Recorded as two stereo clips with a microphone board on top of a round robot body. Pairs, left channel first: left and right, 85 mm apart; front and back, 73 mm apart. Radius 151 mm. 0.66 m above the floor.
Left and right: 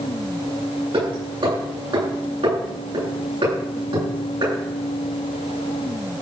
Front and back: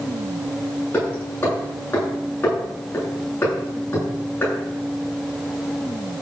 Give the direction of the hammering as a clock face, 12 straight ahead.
2 o'clock.